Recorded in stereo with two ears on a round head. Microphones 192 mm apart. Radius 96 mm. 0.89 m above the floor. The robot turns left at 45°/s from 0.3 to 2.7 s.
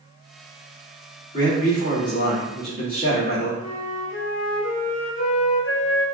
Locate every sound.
1.3 s a man speaking: 110° left, 2.0 m; by 3.5 s 50° left, 2.0 m
3.6 s a flute: 65° left (ahead or behind), 0.7 m